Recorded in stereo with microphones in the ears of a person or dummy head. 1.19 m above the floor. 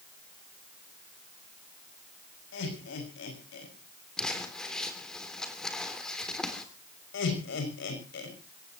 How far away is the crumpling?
About 3 m.